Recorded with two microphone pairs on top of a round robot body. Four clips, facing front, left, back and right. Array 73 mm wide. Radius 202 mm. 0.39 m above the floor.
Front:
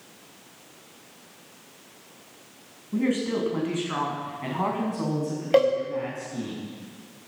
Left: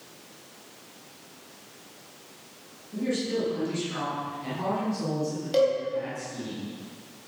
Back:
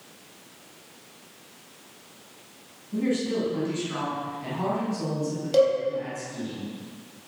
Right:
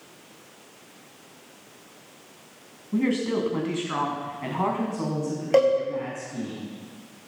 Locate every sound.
2.9 s a woman speaking: 65° right, 6.5 m; by 6.5 s 40° right, 7.5 m
5.5 s a cowbell: 40° right, 4.5 m